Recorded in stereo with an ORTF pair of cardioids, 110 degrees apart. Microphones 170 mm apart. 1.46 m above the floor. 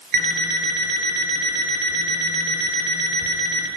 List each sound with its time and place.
0.1 s an alarm clock: 60° right, 3 m